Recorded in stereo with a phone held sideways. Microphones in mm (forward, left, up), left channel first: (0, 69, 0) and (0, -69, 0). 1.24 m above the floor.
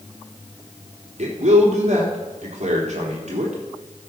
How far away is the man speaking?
About 3.5 m.